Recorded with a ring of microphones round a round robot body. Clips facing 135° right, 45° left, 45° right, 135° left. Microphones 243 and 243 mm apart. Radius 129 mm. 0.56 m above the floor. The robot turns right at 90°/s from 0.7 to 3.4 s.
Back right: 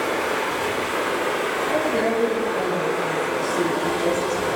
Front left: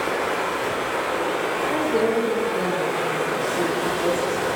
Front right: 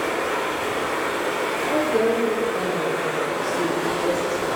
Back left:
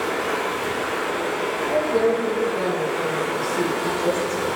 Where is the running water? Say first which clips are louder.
Back right 1 dB, even; 155° right, 1.1 m; by 4.6 s 85° left, 1.1 m.